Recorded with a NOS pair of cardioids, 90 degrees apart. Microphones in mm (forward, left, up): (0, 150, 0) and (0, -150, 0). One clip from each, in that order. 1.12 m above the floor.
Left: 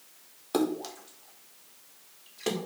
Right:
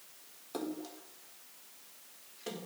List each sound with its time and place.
0.5 s a splash: 70° left, 1.3 m